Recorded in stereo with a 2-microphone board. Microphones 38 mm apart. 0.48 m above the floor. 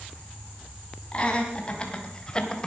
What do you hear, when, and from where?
1.1 s laughter: 30° left (ahead or behind), 4 m; by 2.7 s 20° left (ahead or behind), 1.8 m